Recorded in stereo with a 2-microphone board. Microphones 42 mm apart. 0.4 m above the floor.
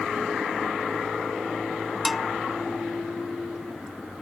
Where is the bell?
Centre (ahead or behind).